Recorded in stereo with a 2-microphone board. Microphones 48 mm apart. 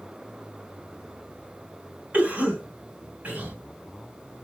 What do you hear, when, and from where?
2.1 s a cough: 40° right (ahead or behind), 1.8 m